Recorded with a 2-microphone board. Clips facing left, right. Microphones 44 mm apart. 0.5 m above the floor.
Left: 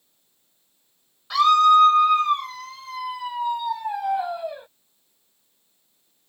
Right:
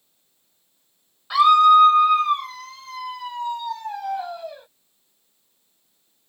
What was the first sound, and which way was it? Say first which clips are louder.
A scream: right 2 dB; 15° right (ahead or behind).